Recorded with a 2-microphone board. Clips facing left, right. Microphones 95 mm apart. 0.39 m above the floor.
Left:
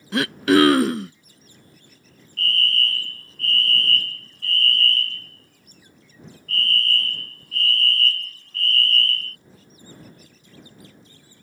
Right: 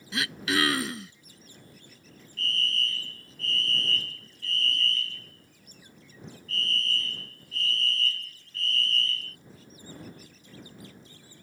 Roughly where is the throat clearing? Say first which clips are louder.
Left 12 dB; left.